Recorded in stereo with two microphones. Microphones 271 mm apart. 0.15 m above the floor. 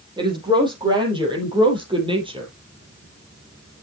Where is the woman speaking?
15° right (ahead or behind), 5.5 m; by 2.5 s 20° right (ahead or behind), 4 m.